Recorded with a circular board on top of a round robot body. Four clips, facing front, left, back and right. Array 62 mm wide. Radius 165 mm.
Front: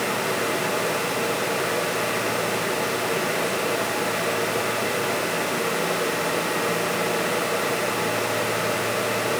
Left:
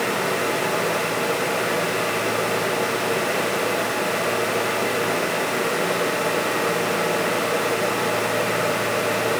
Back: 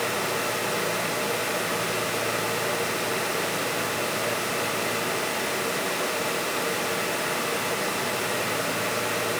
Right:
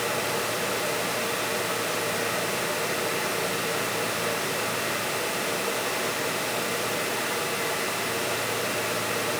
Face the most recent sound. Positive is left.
No sound to turn to.